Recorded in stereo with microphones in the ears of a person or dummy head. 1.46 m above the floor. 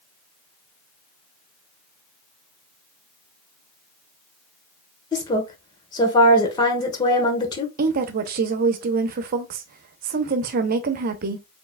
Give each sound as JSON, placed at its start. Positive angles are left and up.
{"t": 5.1, "sound": "a woman speaking", "side_deg": 20, "distance_m": 1.1}
{"t": 7.8, "sound": "a woman speaking", "side_deg": -45, "distance_m": 0.7}